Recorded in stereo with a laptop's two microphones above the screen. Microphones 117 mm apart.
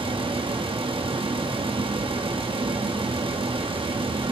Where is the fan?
50° right (ahead or behind), 0.9 m.